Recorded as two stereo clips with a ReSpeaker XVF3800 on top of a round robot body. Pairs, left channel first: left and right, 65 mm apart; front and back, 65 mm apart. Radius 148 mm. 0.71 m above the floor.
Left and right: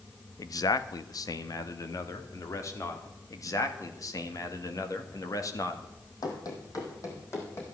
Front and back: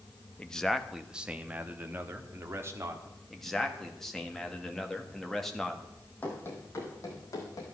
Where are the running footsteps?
70° left, 2 m; by 7.7 s 35° left, 3.5 m.